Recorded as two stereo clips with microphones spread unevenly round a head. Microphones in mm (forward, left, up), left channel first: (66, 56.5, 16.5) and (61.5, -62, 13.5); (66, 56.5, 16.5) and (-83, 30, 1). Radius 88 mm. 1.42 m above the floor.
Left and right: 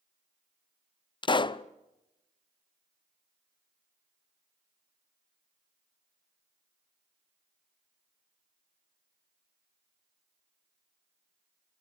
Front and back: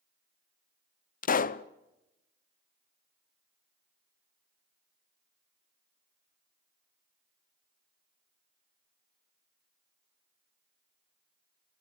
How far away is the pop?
About 0.8 m.